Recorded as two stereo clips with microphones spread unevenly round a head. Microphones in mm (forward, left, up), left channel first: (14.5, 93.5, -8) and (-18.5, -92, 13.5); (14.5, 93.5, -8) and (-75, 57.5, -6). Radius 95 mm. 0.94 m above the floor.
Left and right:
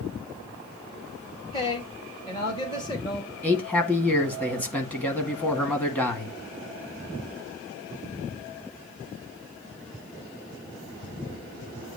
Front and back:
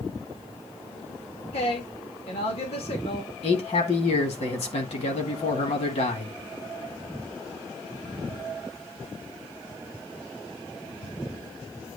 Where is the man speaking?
Straight ahead, 1.8 m.